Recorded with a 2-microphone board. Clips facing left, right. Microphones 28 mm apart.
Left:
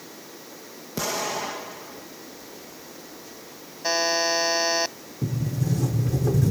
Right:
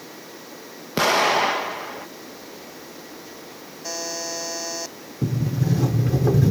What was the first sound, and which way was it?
An explosion, 50° right (ahead or behind).